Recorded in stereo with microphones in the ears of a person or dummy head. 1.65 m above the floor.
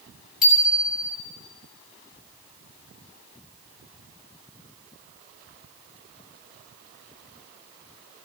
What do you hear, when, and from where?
0.4 s a bicycle bell: 5° right (ahead or behind), 9 m